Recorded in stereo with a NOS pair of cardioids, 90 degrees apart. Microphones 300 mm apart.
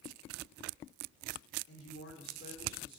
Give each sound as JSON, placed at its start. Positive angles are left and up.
{"t": 1.7, "sound": "a woman speaking", "azimuth_deg": 50, "distance_m": 3.5}